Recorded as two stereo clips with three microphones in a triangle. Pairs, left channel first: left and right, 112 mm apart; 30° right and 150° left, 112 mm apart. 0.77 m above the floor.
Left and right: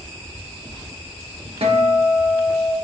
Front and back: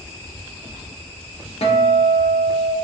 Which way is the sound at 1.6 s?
60° right.